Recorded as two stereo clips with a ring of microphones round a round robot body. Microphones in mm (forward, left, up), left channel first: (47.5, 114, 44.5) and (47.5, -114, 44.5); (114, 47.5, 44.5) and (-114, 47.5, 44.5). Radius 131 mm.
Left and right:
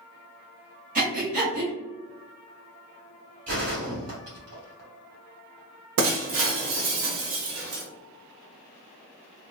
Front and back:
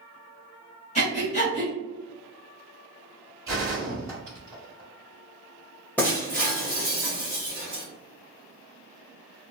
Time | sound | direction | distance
0.9 | breathing | 50° right | 1.4 m
3.5 | a gunshot | 105° right | 1.6 m
6.0 | breaking glass | 85° right | 0.7 m